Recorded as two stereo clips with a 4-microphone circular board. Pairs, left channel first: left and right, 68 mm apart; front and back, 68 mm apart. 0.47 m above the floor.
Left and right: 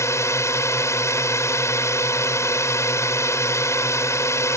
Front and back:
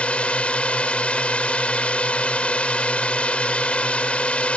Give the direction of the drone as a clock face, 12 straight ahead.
10 o'clock.